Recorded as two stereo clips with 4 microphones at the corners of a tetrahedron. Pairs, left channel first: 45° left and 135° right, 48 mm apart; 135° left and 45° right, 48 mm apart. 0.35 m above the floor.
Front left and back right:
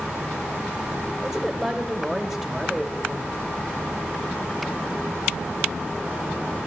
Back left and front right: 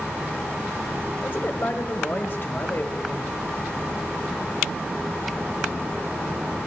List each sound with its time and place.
1.2 s a man speaking: 150° left, 1.2 m